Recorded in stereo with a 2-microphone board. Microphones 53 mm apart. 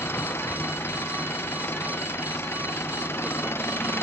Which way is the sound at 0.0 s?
50° left (ahead or behind).